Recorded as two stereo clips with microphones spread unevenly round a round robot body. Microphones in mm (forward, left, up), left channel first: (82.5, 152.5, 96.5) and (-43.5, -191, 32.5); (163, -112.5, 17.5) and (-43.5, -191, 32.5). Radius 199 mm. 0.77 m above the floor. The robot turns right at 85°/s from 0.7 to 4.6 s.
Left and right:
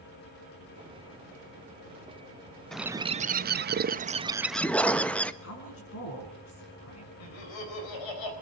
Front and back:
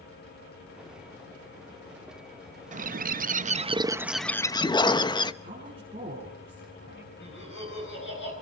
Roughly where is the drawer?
I don't hear a drawer.